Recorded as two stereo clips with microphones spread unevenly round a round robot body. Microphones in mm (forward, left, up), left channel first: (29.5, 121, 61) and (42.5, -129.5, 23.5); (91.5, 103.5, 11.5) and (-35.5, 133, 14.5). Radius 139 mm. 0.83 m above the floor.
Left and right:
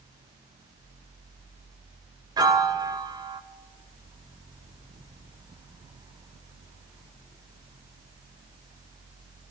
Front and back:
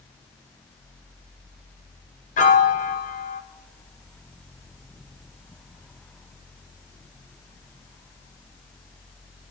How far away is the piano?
About 0.5 m.